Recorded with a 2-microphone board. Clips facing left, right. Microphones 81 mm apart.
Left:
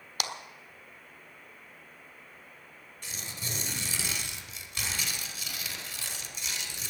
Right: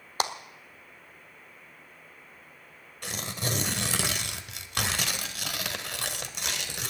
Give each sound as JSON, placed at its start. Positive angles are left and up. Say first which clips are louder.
{"t": 0.2, "sound": "a clap", "louder": "right 7 dB", "side_deg": -35, "distance_m": 1.3}
{"t": 3.0, "sound": "tearing paper", "louder": "right 8 dB", "side_deg": -60, "distance_m": 1.4}